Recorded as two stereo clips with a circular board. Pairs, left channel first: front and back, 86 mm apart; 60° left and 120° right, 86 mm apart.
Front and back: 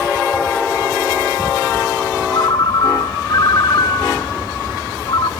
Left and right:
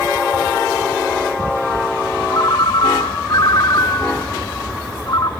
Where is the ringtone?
25° left, 0.8 m.